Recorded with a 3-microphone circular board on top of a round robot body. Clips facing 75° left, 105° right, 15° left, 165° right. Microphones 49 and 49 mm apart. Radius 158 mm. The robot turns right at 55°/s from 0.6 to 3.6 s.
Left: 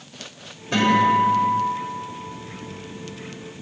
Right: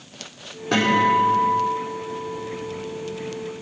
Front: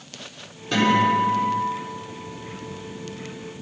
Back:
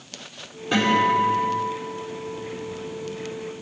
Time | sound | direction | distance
0.7 | a guitar | 90° right | 4 m